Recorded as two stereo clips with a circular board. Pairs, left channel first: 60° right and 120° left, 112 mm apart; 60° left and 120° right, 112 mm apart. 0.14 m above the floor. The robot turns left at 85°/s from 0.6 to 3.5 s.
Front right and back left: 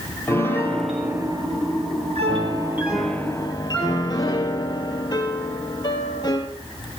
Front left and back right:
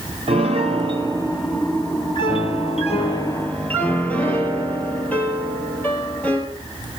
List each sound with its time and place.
0.3 s a piano: 125° right, 2 m; by 6.5 s 15° right, 2 m